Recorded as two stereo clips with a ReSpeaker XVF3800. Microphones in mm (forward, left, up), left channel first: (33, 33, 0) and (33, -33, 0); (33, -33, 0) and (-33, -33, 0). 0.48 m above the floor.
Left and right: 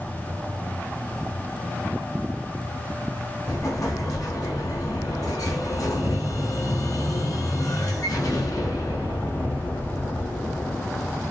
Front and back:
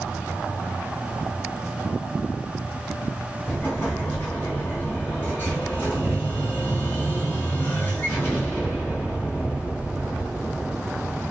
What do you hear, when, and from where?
3.5 s an explosion: 60° left, 3.5 m